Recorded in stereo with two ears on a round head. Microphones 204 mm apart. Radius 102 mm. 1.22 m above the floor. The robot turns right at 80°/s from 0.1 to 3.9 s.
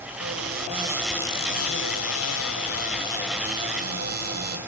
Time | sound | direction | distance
0.2 | a cupboard door | 70° right | 5.5 m